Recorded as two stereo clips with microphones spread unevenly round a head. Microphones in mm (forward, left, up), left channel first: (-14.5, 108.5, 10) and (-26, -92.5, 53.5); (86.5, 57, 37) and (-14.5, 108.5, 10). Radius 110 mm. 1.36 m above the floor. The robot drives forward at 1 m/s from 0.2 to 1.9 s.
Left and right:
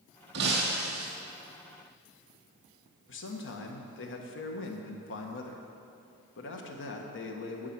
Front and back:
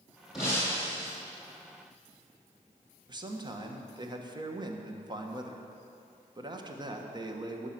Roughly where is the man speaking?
Left.